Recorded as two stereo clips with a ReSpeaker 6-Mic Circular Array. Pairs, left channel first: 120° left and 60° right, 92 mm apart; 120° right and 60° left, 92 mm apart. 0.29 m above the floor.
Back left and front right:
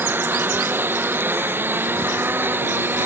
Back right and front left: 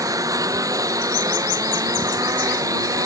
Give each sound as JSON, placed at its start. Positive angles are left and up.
{"t": 0.0, "sound": "a lawn mower", "azimuth_deg": 10}